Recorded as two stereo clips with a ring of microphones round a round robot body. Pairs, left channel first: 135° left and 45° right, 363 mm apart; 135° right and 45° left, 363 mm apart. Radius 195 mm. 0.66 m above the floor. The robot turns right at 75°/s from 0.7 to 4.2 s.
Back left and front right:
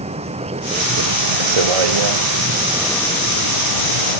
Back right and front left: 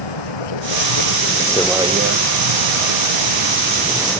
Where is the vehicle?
120° right; by 4.2 s 145° left.